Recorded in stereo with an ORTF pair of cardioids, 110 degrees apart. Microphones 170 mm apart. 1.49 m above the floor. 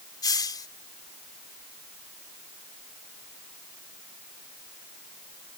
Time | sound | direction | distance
0.2 | a hiss | 25° left | ?